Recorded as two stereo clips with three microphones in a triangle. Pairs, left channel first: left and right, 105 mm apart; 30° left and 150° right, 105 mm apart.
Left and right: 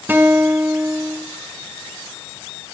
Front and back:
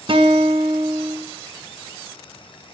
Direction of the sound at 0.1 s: 160° right.